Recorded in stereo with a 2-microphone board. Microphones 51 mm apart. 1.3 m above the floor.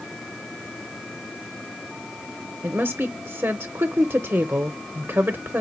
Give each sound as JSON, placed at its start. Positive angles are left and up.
{"t": 2.6, "sound": "a woman speaking", "side_deg": -45, "distance_m": 0.7}